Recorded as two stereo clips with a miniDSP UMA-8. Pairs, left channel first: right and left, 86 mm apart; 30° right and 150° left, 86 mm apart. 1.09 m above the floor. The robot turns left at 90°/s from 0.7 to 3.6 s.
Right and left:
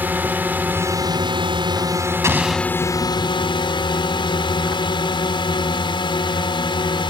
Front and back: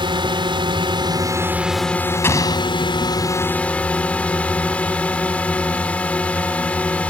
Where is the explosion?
35° left; by 2.6 s straight ahead.